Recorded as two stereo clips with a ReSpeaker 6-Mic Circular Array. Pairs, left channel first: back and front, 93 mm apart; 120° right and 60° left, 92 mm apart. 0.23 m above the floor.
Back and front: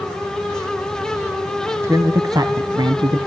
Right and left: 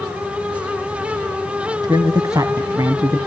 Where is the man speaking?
50° left, 1.3 m; by 3.2 s 15° left, 1.8 m.